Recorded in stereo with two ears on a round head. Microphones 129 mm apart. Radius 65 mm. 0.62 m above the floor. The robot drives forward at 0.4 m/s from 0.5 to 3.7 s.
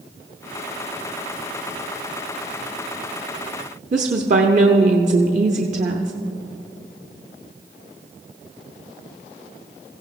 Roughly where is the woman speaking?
Right.